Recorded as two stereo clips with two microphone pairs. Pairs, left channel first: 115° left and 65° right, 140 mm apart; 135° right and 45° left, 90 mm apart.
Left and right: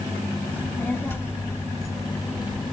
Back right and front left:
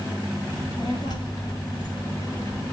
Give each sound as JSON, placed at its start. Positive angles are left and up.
{"t": 0.5, "sound": "a child speaking", "azimuth_deg": -170, "distance_m": 2.5}